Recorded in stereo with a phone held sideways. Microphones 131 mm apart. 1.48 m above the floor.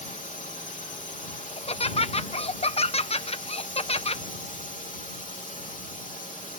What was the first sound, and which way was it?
A drone, 70° left (ahead or behind).